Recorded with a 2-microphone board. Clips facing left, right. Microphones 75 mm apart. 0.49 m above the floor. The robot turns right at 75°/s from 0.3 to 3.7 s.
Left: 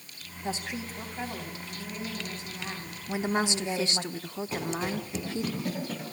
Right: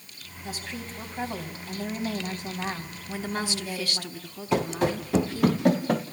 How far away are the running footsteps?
About 4 m.